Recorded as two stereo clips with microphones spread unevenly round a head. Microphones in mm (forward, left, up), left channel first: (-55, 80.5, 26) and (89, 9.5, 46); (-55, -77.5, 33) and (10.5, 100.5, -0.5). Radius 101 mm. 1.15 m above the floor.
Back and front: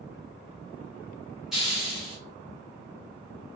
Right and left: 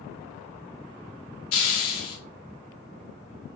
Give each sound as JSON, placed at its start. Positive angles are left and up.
{"t": 1.5, "sound": "a hiss", "azimuth_deg": -115, "distance_m": 0.8}